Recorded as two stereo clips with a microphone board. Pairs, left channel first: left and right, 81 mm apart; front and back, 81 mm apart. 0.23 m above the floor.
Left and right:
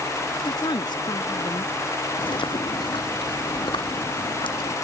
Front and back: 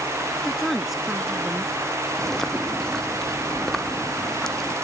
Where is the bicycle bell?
I don't hear a bicycle bell.